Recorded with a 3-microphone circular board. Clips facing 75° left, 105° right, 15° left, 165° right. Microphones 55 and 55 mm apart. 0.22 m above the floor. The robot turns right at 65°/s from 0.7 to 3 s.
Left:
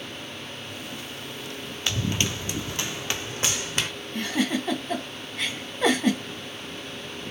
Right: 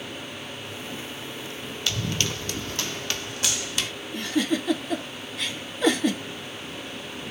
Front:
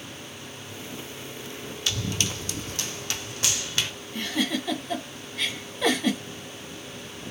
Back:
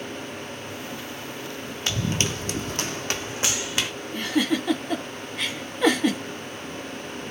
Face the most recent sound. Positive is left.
turn(degrees=120)